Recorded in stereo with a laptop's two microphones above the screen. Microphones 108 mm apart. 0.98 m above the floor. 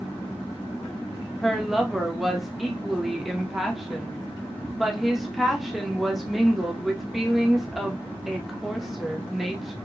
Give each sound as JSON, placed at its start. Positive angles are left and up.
{"t": 1.4, "sound": "a woman speaking", "side_deg": 0, "distance_m": 1.2}